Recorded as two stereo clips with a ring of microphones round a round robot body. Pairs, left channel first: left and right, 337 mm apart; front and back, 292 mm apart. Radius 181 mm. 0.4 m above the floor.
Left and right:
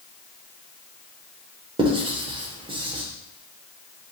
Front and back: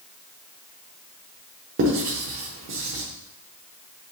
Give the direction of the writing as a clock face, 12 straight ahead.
5 o'clock.